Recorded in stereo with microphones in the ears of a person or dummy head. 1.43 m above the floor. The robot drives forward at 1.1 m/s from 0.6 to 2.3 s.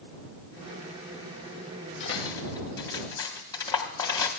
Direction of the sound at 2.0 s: 25° left (ahead or behind).